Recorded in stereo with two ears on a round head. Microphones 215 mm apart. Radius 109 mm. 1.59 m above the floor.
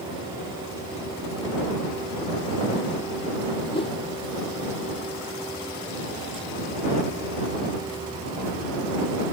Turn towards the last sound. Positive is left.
turn(degrees=25)  # may be behind; listen again after turning